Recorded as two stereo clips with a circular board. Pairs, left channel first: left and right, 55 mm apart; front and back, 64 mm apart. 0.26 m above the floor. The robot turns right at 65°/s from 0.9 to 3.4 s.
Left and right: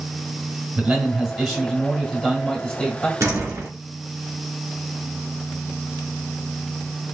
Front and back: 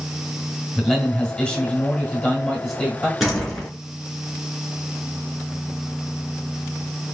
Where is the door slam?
95° right, 2 m; by 3.7 s 80° right, 2 m.